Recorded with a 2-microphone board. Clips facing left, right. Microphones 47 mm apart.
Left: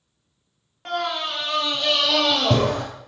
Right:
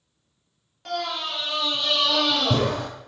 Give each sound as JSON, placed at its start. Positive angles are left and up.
{"t": 0.8, "sound": "a scream", "side_deg": 30, "distance_m": 1.5}